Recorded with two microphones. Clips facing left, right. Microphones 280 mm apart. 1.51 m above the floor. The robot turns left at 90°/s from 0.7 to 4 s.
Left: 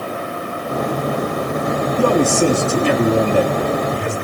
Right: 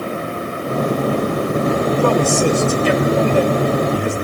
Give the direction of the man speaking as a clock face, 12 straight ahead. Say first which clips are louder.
Left 4 dB; 7 o'clock.